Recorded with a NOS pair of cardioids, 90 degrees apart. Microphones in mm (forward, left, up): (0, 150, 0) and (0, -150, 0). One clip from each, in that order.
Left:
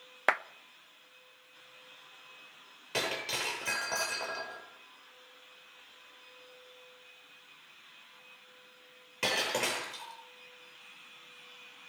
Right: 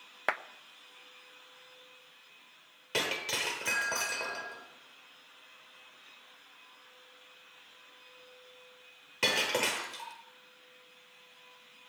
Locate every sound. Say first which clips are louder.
0.3 s a clap: left 4 dB; 15° left, 0.7 m
2.9 s breaking glass: right 1 dB; 25° right, 9 m